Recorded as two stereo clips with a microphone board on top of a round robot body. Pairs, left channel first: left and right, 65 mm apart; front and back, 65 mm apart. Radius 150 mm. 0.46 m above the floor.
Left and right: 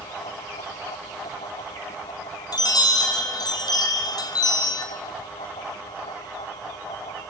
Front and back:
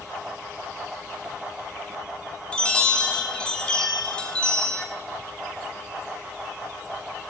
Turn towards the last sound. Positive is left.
turn(degrees=75)